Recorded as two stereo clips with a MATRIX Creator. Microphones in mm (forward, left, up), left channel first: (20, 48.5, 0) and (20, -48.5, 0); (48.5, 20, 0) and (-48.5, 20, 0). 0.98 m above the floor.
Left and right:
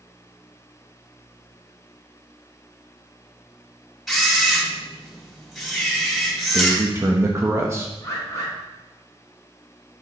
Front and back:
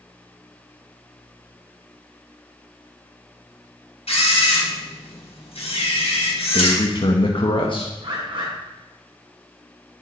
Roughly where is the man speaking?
Ahead right.